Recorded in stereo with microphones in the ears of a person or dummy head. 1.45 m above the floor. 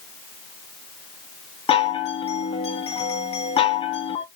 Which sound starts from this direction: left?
A chime, at 1.7 s.